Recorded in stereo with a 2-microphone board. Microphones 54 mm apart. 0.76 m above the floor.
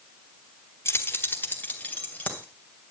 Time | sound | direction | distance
0.8 | keys jangling | 55° left (ahead or behind) | 1.4 m